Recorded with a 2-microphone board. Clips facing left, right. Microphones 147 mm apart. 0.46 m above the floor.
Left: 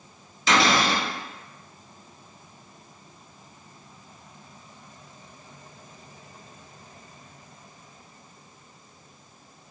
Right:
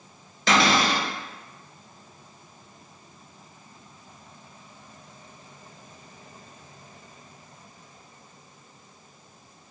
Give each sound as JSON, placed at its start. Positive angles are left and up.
{"t": 0.5, "sound": "a cupboard door", "side_deg": -60, "distance_m": 1.4}